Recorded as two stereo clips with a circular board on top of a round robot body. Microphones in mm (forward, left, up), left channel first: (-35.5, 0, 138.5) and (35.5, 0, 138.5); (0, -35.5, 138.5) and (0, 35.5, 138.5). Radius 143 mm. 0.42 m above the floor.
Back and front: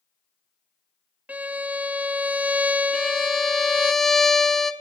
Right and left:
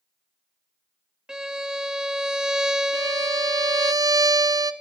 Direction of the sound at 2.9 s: 95° left.